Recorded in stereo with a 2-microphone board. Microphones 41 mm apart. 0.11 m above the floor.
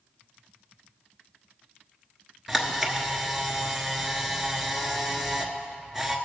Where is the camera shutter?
5° right (ahead or behind), 1.2 m.